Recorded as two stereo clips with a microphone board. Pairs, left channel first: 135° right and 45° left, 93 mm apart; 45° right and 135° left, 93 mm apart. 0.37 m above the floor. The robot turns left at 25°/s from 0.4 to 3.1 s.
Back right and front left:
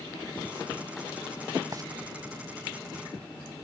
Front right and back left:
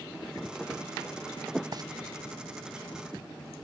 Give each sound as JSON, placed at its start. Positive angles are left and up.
{"t": 1.7, "sound": "frying", "azimuth_deg": 95, "distance_m": 0.6}